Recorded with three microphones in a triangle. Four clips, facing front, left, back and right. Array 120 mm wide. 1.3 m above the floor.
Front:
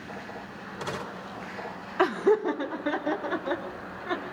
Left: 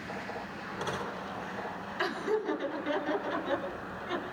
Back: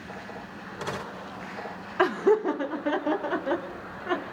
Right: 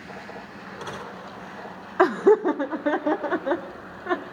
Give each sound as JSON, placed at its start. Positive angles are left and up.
{"t": 2.0, "sound": "laughter", "azimuth_deg": -90, "distance_m": 1.0}